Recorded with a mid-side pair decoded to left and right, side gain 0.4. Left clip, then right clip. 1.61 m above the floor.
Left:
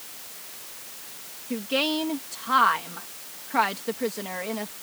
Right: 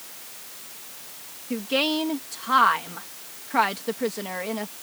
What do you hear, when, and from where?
1.5 s a woman speaking: 15° right